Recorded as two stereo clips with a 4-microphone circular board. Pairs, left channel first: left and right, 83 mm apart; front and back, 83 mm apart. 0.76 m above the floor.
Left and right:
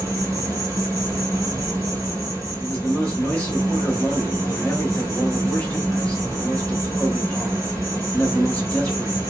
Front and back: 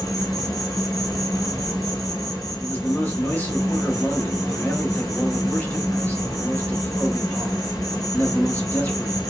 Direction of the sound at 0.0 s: 40° right.